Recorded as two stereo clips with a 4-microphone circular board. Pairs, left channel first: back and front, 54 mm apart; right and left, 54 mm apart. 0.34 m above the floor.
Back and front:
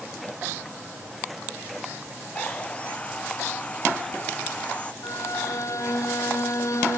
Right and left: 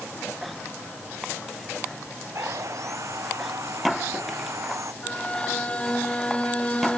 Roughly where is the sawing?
Behind left.